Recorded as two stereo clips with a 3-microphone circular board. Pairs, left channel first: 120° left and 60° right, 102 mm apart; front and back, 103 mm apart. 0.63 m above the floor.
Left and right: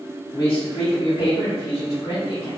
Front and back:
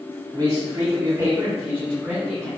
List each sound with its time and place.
0.3 s a man speaking: 150° left, 1.0 m; by 2.5 s 100° left, 1.7 m